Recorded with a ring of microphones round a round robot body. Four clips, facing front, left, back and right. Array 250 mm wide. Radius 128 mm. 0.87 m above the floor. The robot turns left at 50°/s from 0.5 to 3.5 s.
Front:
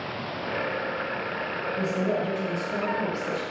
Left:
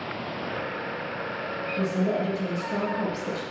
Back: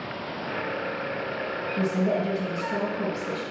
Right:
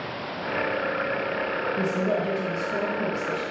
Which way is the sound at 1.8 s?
160° left.